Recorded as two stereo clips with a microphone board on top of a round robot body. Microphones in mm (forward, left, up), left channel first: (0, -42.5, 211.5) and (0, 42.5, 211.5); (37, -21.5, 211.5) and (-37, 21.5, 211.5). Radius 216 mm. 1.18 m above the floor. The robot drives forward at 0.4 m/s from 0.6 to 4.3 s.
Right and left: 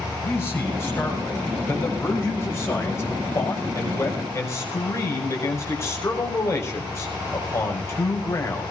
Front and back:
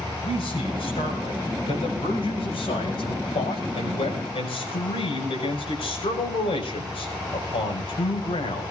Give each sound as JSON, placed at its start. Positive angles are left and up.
{"t": 0.2, "sound": "a man speaking", "azimuth_deg": -25, "distance_m": 7.5}